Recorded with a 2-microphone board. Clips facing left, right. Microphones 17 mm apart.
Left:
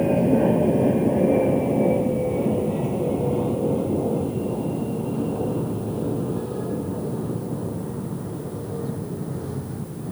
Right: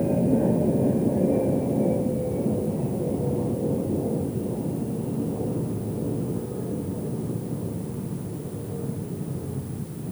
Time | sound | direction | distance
0.0 | an aircraft | 65° left (ahead or behind) | ?